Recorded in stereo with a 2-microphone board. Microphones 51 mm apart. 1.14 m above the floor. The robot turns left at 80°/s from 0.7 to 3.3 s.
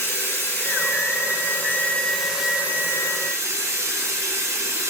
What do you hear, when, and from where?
0.0 s running water: 120° left, 3.5 m; by 4.9 s 90° right, 3.5 m